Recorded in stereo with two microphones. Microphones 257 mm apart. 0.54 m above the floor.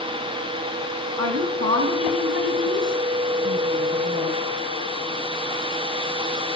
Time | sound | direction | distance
1.2 | a woman speaking | 75° right (ahead or behind) | 4.5 m